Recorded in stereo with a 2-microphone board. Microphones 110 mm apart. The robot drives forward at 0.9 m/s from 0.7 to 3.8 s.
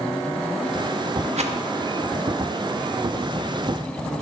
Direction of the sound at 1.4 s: 80° right.